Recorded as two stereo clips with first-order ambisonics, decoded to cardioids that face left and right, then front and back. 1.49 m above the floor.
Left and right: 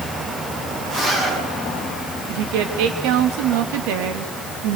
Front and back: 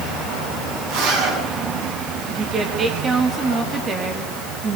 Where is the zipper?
165° right, 10 m.